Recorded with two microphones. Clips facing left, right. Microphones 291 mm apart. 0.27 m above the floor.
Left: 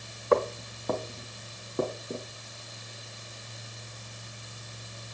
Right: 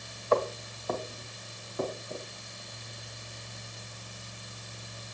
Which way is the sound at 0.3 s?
65° left (ahead or behind).